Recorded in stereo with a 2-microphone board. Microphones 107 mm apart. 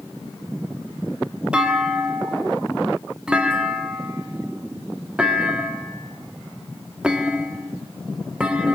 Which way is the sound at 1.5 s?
10° right (ahead or behind).